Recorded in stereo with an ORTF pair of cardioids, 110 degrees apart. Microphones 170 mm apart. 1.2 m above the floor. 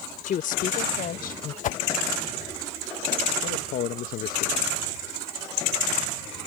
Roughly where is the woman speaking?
Ahead left.